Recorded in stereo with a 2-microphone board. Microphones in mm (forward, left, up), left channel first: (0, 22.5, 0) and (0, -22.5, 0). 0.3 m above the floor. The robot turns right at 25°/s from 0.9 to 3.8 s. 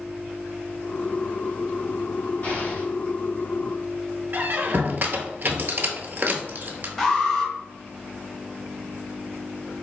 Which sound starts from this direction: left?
An explosion, at 2.4 s.